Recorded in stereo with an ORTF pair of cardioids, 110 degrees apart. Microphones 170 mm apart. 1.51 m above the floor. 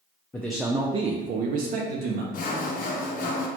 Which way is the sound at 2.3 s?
55° left.